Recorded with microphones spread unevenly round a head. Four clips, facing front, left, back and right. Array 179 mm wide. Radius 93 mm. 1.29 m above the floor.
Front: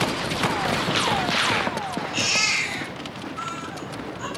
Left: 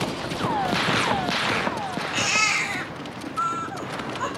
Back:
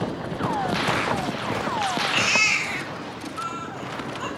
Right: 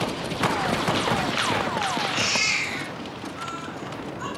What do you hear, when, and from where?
2.1 s a baby crying: 105° left, 4.5 m